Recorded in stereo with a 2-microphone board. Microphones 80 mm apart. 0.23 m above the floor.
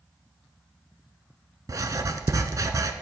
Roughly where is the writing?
Right.